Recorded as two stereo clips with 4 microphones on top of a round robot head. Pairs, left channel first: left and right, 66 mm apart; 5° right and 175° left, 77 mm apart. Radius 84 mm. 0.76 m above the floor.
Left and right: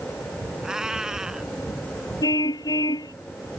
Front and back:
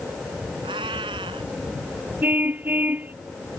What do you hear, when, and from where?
0.6 s a cat meowing: 170° right
2.2 s a car horn: 105° left